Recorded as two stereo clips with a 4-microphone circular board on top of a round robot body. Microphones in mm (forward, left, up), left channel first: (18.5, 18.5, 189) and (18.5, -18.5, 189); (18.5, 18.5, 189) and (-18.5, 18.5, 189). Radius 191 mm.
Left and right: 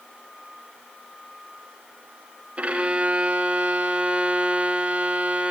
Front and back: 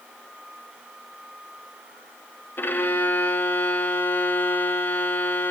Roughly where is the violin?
Ahead right.